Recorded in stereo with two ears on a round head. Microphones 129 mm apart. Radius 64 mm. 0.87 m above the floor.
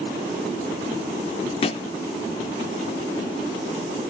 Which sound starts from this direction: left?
A thud, at 1.6 s.